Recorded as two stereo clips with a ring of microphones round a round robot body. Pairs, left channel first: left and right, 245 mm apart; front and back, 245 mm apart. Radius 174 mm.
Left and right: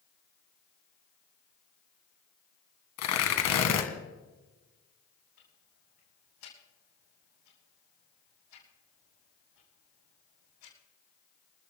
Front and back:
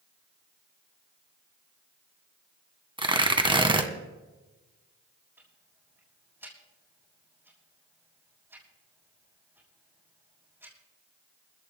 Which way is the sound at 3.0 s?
110° left.